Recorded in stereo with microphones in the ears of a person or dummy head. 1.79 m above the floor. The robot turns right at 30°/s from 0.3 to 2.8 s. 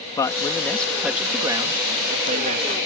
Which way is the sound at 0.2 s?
160° left.